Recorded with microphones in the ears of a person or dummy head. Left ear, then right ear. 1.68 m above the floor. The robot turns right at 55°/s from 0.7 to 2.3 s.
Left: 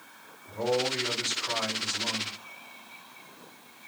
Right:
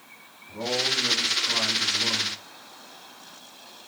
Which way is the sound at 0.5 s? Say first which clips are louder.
Right 2 dB; 115° left.